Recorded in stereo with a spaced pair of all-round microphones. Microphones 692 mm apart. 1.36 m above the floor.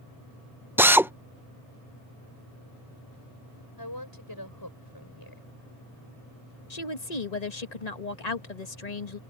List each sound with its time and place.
0.8 s a drill: 5° right (ahead or behind)
3.8 s a woman speaking: 35° left (ahead or behind)
6.7 s a woman speaking: 75° left (ahead or behind)